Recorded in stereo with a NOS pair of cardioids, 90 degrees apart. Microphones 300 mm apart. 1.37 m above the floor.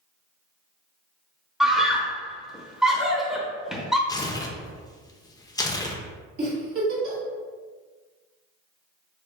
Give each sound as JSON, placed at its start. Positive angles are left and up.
{"t": 1.6, "sound": "a scream", "azimuth_deg": 0, "distance_m": 1.0}
{"t": 4.1, "sound": "tearing paper", "azimuth_deg": 15, "distance_m": 0.5}
{"t": 6.4, "sound": "a giggle", "azimuth_deg": -50, "distance_m": 1.7}